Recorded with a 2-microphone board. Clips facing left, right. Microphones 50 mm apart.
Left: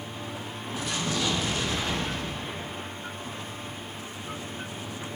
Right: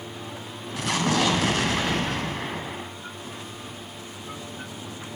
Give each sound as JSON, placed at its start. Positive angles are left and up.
{"t": 0.8, "sound": "an explosion", "side_deg": -80, "distance_m": 0.5}